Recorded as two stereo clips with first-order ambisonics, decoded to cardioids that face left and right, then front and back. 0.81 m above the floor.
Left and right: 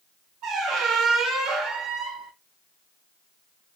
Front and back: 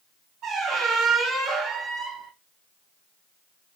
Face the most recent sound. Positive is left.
turn(degrees=-125)